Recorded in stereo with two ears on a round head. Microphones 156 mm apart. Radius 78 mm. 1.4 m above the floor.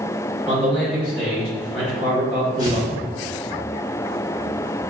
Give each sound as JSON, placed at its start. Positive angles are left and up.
{"t": 0.5, "sound": "a man speaking", "side_deg": -5, "distance_m": 1.2}
{"t": 2.6, "sound": "tearing paper", "side_deg": 35, "distance_m": 1.6}